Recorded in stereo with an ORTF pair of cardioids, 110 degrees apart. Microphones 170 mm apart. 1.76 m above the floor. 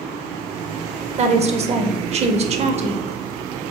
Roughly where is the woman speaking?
Ahead right.